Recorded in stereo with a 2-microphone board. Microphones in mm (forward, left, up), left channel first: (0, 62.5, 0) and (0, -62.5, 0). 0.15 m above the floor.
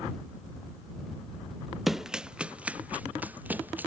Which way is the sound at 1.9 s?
Centre (ahead or behind).